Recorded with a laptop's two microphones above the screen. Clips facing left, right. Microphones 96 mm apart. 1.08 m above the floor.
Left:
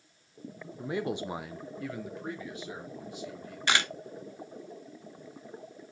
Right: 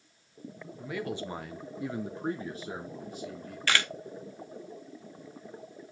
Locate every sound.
0.8 s a man speaking: 30° left (ahead or behind), 0.9 m; by 3.6 s 40° right (ahead or behind), 2.0 m
3.7 s a camera shutter: 20° left (ahead or behind), 1.0 m